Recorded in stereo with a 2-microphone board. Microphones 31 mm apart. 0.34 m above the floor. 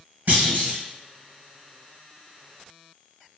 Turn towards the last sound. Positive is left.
turn(degrees=-50)  # may be behind; listen again after turning